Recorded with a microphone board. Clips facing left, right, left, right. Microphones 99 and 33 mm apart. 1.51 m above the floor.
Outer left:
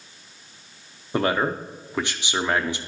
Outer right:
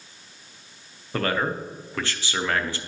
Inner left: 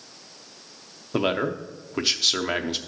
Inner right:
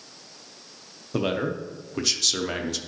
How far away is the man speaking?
About 0.6 m.